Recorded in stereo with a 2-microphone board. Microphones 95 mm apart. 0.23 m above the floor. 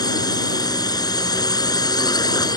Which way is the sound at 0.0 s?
45° left (ahead or behind).